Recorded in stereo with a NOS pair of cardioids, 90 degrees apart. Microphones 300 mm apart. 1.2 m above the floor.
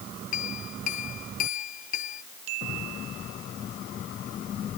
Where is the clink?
70° left.